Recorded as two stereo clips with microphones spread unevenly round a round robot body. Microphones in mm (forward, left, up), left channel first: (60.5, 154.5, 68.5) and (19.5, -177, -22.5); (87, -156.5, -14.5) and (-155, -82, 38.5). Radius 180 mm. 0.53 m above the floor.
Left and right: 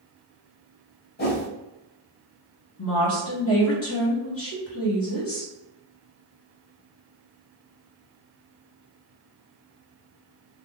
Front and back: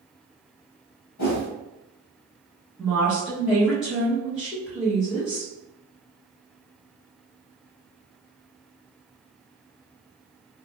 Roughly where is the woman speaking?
Ahead left.